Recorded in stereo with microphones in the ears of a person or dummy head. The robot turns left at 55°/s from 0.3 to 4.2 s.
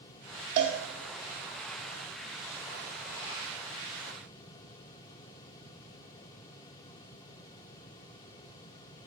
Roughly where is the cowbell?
Right.